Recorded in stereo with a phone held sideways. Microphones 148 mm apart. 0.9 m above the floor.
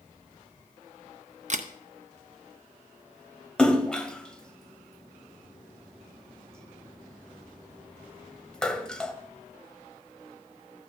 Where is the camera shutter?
55° right (ahead or behind), 0.7 m.